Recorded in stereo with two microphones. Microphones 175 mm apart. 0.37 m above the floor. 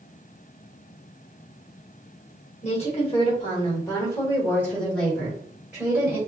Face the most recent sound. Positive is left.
turn(degrees=-10)  # may be behind; listen again after turning